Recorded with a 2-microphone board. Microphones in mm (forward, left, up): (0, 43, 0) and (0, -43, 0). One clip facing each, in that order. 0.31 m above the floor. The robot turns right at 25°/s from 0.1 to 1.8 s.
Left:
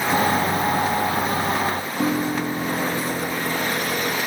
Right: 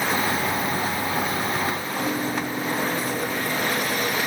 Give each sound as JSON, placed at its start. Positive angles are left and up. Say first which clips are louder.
{"t": 2.0, "sound": "a piano", "louder": "left 5 dB", "side_deg": 65, "distance_m": 3.5}